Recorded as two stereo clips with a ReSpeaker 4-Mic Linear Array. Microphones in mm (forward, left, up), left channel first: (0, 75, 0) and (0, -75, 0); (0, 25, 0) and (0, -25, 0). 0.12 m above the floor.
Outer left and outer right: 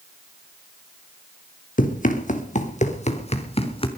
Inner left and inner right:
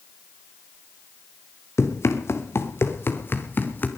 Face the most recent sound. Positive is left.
turn(degrees=40)  # may be behind; listen again after turning